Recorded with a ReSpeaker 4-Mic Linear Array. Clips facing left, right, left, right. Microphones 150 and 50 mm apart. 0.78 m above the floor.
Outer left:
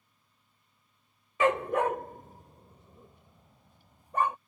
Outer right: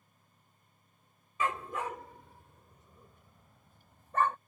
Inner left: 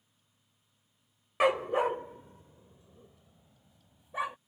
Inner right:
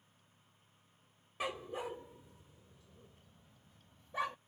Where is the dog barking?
65° left (ahead or behind); by 4.4 s 10° left (ahead or behind).